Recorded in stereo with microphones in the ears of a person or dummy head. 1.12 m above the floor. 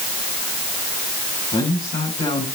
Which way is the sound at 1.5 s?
35° left (ahead or behind).